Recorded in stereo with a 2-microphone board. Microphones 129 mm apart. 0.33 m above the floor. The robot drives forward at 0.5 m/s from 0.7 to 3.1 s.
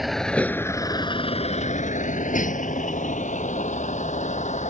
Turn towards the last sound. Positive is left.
turn(degrees=65)  # may be behind; listen again after turning